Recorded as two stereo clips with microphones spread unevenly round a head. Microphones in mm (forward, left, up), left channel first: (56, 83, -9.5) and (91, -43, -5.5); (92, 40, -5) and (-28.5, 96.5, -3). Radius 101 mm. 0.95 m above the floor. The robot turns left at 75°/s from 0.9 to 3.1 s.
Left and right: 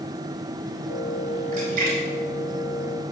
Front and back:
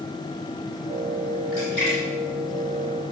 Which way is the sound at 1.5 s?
60° right.